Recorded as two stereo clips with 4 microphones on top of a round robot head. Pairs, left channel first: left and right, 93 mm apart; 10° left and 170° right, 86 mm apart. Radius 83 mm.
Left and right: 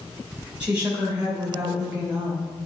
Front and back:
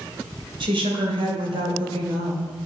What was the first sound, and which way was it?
A woman speaking, 165° right.